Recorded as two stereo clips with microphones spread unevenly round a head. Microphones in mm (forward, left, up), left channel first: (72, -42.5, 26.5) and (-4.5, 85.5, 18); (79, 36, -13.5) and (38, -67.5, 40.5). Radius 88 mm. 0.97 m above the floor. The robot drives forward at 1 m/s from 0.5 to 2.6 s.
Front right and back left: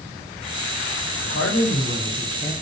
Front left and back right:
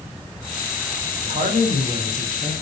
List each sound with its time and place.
1.2 s a man speaking: 80° right, 4.5 m; by 2.5 s 95° right, 4 m